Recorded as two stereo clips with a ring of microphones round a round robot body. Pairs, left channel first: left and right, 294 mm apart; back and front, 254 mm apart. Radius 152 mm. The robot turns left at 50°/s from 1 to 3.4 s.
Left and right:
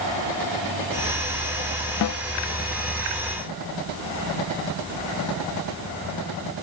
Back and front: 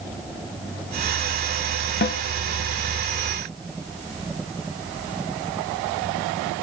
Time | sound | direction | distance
2.0 | a snare drum | 130° left | 0.5 m